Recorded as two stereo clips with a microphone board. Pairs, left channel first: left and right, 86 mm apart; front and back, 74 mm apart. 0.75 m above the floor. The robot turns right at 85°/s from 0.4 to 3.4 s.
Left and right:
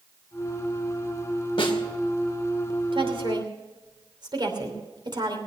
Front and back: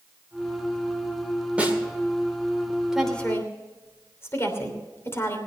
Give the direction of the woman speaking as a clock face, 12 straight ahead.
3 o'clock.